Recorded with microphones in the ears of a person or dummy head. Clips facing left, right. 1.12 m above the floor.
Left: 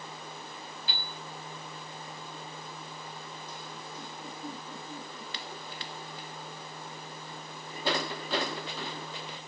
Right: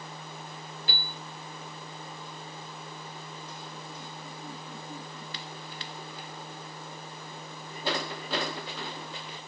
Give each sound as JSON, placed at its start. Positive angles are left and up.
{"t": 0.9, "sound": "a piano", "side_deg": -55, "distance_m": 2.5}